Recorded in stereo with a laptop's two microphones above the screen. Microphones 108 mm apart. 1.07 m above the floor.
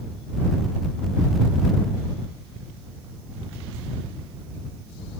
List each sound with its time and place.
Only background noise.